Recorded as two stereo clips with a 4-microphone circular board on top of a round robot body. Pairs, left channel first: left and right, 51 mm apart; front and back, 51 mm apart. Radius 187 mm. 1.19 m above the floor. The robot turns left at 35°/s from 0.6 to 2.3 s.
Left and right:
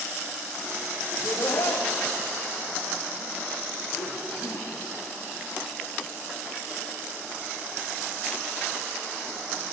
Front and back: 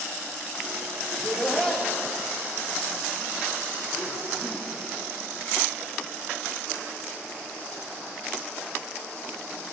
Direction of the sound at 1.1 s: 110° left.